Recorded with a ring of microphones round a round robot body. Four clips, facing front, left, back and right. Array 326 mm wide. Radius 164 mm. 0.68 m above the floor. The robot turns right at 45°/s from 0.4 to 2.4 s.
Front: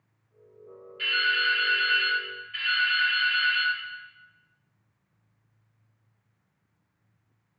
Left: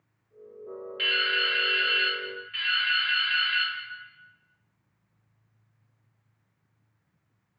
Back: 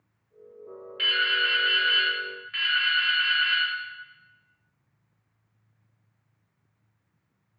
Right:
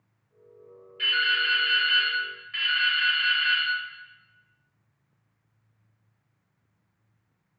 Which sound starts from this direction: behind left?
Dripping, at 1.0 s.